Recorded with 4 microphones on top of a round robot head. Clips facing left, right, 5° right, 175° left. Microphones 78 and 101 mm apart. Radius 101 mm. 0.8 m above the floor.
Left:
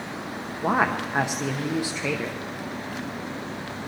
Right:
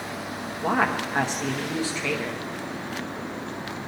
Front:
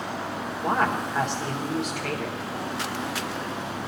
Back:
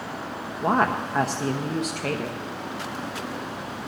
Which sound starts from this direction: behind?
A woman speaking, at 0.6 s.